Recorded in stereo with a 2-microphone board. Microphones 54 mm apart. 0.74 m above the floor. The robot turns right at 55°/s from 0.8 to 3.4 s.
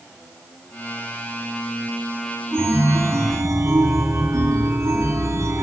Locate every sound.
2.5 s a chime: 135° right, 1.6 m; by 5.6 s 85° right, 1.6 m